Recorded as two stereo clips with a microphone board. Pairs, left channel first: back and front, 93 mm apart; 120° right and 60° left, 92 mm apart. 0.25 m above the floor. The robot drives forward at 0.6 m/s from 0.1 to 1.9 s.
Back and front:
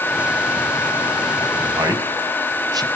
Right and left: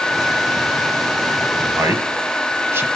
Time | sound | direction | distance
1.6 | a man speaking | 5° left | 1.5 m